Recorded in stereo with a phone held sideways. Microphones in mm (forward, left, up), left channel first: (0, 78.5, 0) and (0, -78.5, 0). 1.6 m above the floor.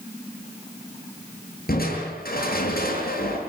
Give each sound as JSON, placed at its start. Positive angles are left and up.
{"t": 1.7, "sound": "crushing", "side_deg": 70, "distance_m": 8.0}